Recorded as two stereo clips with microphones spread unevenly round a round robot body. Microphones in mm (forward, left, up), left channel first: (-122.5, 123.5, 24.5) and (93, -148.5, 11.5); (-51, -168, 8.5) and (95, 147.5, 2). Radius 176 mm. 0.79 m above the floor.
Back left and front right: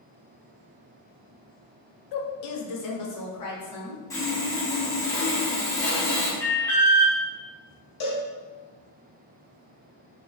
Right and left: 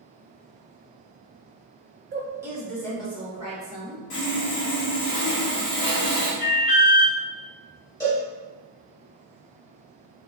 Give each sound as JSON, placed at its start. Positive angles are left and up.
{"t": 2.1, "sound": "a woman speaking", "azimuth_deg": 125, "distance_m": 0.5}
{"t": 4.1, "sound": "sawing", "azimuth_deg": -150, "distance_m": 1.1}
{"t": 6.4, "sound": "an alarm", "azimuth_deg": -145, "distance_m": 0.8}
{"t": 8.0, "sound": "a cowbell", "azimuth_deg": 165, "distance_m": 1.5}